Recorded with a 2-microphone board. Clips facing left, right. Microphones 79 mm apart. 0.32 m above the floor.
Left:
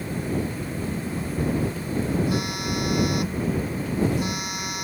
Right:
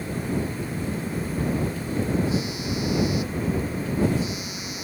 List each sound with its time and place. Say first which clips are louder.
2.3 s a phone buzzing: left 1 dB; 60° left (ahead or behind)